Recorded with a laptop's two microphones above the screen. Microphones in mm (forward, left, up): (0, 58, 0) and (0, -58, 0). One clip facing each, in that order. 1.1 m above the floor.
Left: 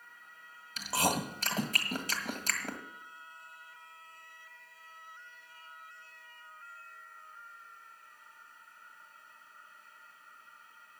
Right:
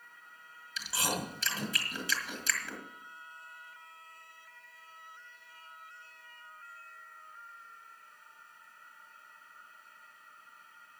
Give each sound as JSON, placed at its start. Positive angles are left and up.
{"t": 0.8, "sound": "chewing", "side_deg": 50, "distance_m": 1.7}